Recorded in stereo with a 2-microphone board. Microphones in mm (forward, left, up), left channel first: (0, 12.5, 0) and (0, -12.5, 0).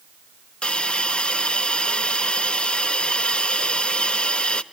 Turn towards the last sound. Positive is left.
turn(degrees=40)  # may be behind; listen again after turning